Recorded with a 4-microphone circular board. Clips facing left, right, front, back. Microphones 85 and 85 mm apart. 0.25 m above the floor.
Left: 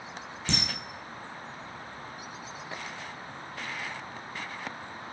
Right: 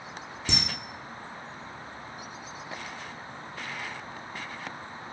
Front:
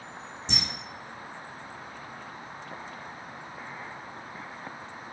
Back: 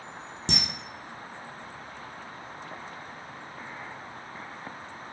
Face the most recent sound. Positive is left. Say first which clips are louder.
# left 1 dB, back 4 dB
turn(degrees=-170)